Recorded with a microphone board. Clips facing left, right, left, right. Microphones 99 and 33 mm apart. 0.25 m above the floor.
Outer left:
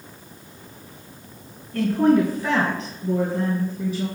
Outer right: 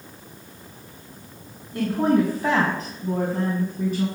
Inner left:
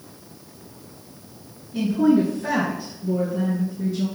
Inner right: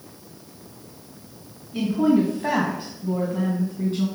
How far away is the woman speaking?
About 2.5 m.